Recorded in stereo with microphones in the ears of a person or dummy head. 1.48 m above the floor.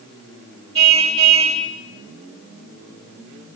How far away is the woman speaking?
I don't hear a woman speaking.